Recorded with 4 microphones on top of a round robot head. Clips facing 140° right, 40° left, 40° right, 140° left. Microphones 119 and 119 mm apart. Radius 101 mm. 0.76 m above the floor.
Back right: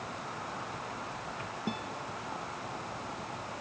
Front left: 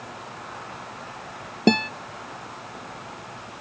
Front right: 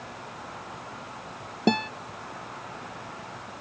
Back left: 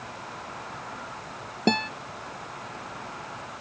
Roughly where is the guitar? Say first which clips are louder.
Front left 19 dB, front right 1 dB; ahead left.